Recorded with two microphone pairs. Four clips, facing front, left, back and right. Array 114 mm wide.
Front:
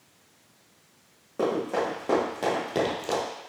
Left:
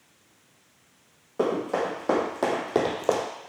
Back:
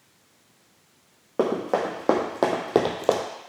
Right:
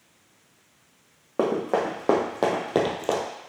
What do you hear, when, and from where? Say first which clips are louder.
1.4 s running footsteps: right 2 dB, back 3 dB; 135° right, 3.5 m; by 3.2 s 165° left, 1.7 m